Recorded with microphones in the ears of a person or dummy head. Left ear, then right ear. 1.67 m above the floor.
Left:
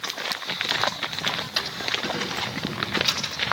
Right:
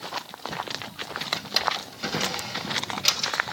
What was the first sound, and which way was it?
A drawer, 25° right (ahead or behind).